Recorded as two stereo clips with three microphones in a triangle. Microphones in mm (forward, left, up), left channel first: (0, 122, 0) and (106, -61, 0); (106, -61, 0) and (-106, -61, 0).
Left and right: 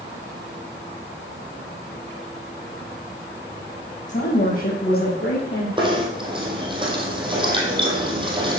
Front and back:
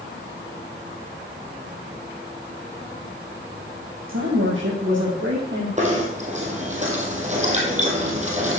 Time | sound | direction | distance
4.1 | a woman speaking | 175° left | 4.5 m
5.8 | knocking | 125° right | 2.5 m